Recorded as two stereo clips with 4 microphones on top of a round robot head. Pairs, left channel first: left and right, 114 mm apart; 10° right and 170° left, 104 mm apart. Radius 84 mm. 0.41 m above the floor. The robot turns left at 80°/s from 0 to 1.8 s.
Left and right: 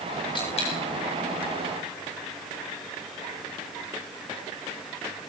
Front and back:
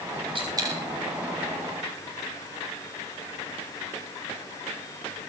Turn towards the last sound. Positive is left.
turn(degrees=20)